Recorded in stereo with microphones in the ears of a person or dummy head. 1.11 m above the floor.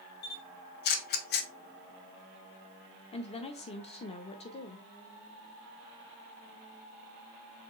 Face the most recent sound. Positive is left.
turn(degrees=30)  # may be behind; listen again after turning